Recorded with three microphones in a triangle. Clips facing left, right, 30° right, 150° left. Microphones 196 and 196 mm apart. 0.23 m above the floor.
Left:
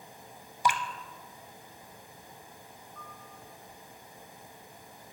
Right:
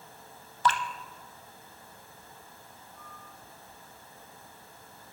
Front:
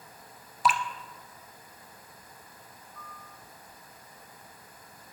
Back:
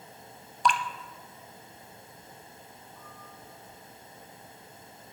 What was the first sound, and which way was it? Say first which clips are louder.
Dripping: right 1 dB, even; 50° left.